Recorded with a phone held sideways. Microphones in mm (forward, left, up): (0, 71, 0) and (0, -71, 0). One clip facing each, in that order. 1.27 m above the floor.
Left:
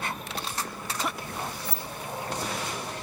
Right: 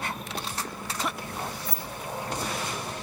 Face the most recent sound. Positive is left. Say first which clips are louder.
# even
turn(degrees=30)  # may be behind; listen again after turning